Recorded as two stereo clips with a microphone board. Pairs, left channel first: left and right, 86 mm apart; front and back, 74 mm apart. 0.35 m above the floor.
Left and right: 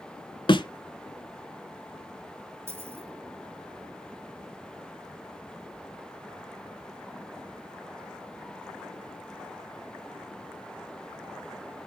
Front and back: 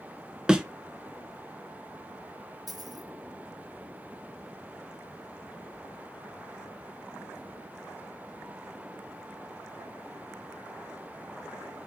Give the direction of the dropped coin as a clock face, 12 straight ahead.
5 o'clock.